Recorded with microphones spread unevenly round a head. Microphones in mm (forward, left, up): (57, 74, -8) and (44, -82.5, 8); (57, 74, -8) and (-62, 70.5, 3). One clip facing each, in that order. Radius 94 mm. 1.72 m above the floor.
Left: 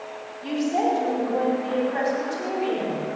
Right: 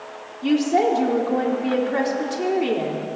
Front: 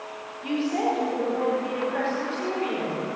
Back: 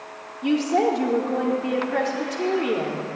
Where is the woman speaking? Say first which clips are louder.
Right 5 dB, back 5 dB; 140° right, 4.5 m.